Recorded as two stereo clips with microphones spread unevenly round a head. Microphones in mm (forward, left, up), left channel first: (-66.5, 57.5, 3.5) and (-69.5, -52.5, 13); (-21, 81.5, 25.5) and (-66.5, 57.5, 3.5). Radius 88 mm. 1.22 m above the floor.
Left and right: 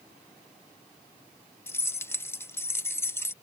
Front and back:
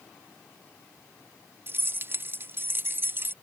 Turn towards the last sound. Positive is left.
turn(degrees=160)